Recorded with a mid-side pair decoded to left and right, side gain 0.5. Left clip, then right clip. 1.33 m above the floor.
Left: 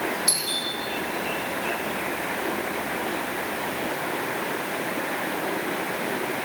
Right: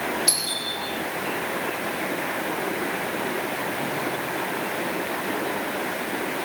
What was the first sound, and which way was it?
A doorbell, 25° right.